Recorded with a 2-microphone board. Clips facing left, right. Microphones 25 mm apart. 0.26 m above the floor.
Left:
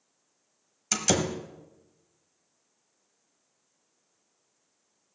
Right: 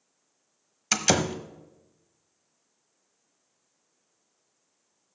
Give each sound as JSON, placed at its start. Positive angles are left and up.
{"t": 0.9, "sound": "a door slam", "side_deg": -30, "distance_m": 0.9}